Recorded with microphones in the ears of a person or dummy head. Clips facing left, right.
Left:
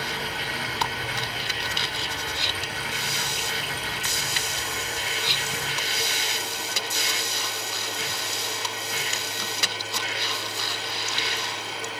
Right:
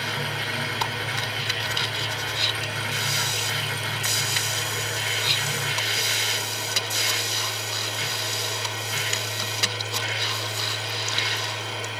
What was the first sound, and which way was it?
A machine running, 60° right (ahead or behind).